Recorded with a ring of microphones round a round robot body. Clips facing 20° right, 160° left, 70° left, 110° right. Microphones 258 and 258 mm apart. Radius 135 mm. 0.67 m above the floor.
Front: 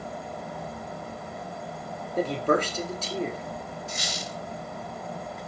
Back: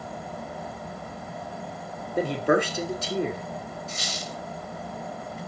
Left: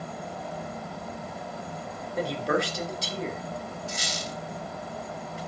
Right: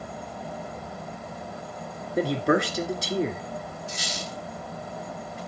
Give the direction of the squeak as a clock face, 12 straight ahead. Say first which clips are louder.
Even, even; 10 o'clock.